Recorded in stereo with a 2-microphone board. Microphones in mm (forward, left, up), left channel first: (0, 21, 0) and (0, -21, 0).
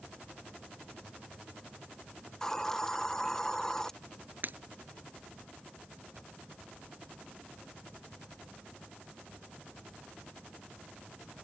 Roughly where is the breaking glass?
Right.